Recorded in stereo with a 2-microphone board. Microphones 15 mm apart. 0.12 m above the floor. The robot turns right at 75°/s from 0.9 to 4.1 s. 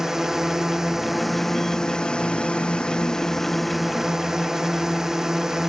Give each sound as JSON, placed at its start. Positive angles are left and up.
{"t": 0.0, "sound": "a drone", "azimuth_deg": -25}